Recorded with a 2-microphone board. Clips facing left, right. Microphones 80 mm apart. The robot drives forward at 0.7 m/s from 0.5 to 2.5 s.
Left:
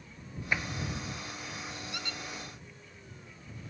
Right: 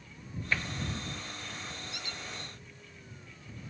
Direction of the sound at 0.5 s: 15° left (ahead or behind).